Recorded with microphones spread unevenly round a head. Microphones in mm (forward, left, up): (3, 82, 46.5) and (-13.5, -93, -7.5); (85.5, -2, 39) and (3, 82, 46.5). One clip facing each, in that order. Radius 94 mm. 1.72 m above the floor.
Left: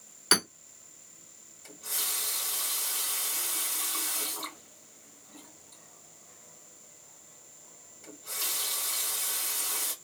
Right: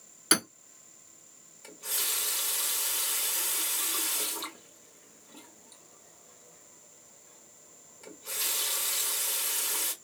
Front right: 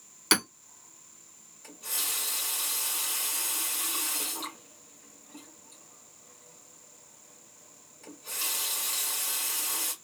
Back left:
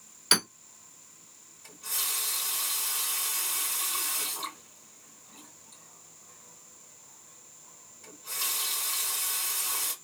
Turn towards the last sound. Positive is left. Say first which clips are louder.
# right 2 dB, even
turn(degrees=-80)